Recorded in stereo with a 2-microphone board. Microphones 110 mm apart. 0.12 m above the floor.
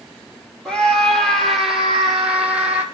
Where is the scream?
5° left (ahead or behind), 4.5 m; by 2.8 s 15° right (ahead or behind), 5.5 m.